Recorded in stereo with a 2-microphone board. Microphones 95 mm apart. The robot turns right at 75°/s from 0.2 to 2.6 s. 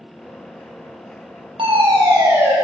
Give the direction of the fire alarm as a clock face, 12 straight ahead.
3 o'clock.